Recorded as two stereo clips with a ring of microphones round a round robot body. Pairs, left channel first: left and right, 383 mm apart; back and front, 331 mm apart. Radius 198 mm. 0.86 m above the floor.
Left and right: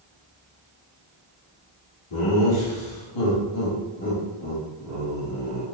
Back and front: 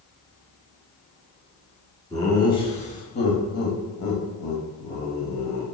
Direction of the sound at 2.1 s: 100° left.